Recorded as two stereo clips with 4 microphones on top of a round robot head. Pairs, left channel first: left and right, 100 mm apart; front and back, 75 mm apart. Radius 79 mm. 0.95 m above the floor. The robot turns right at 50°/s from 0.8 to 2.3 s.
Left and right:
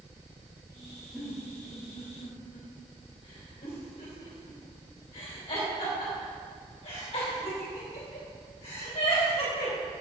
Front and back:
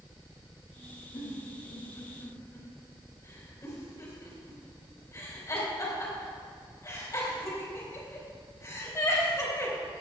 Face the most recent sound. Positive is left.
turn(degrees=45)